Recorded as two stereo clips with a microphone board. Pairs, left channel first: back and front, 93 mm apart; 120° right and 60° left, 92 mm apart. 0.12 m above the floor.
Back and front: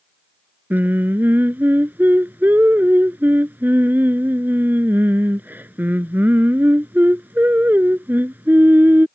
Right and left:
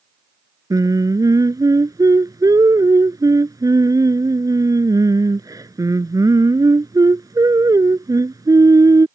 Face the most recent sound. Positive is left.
turn(degrees=60)